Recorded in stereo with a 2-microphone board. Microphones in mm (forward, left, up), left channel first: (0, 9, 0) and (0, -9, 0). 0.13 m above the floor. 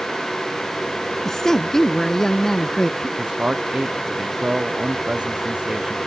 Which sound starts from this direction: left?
A woman speaking, at 1.2 s.